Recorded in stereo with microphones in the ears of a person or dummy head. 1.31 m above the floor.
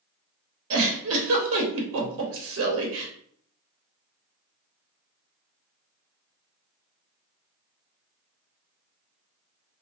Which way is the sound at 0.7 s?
75° right (ahead or behind).